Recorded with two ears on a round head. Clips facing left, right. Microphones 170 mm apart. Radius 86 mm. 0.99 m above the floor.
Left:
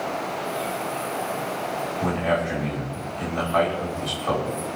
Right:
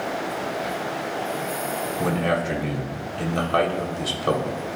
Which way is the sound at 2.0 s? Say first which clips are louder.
Even; 55° right (ahead or behind).